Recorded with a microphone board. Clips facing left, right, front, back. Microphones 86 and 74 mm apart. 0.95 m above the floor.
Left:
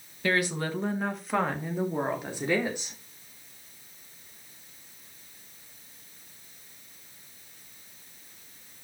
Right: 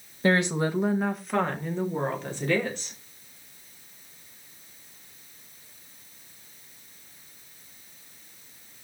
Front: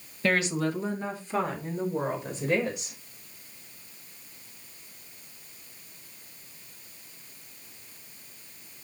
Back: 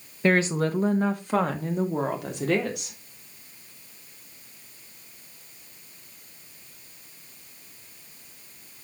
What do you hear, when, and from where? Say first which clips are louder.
0.2 s a woman speaking: right 4 dB, back 4 dB; 125° right, 1.0 m; by 3.0 s 165° left, 3.5 m